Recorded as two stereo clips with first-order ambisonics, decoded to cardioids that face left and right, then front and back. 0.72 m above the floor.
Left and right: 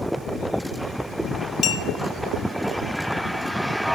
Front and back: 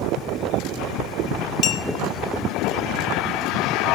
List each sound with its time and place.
1.6 s a clink: 35° left, 0.6 m